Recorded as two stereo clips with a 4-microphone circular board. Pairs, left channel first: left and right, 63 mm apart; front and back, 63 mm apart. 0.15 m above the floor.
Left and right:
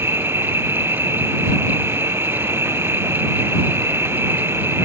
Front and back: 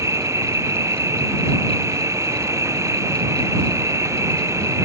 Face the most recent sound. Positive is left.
turn(degrees=-140)